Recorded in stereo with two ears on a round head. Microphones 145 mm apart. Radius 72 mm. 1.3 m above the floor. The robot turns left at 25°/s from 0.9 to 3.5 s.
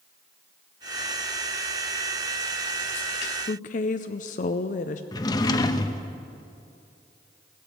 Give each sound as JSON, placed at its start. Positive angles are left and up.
{"t": 3.5, "sound": "a woman speaking", "side_deg": 50, "distance_m": 0.5}
{"t": 5.1, "sound": "a drawer", "side_deg": 25, "distance_m": 0.6}